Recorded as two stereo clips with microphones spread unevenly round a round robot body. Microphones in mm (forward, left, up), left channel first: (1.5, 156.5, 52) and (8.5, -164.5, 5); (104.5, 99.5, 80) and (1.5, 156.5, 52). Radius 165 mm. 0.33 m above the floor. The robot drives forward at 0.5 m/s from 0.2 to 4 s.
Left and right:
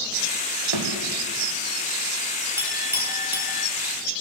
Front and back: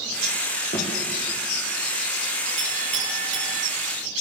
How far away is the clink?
About 7 m.